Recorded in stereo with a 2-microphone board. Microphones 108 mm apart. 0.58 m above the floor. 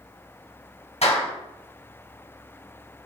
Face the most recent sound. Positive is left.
turn(degrees=80)